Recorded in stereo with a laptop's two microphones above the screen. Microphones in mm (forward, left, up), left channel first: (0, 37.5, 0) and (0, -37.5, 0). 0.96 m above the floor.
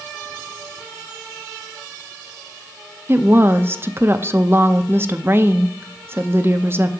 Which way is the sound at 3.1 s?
30° right (ahead or behind).